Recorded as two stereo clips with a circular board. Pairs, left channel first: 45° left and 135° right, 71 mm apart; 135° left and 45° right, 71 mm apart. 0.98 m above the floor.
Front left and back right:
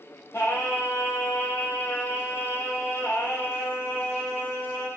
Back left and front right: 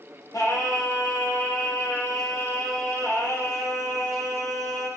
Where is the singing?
95° left, 2.5 m.